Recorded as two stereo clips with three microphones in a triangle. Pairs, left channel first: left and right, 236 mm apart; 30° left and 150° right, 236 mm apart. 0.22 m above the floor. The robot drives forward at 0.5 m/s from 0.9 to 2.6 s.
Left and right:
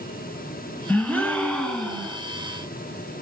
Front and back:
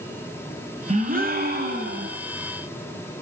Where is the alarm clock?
No alarm clock in this recording.